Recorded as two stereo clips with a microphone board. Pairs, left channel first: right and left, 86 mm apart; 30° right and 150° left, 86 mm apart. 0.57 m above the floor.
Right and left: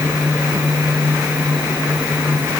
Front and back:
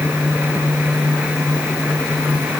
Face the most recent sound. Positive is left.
No sound to turn to.